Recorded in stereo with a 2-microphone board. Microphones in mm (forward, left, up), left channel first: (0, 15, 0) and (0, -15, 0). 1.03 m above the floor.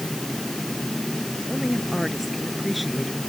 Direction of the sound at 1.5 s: 5° right (ahead or behind).